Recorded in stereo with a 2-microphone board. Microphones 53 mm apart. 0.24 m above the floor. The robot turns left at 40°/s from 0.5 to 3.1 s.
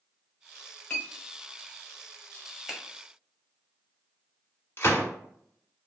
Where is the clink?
20° left (ahead or behind), 1.5 m; by 1.1 s 15° left (ahead or behind), 1.5 m.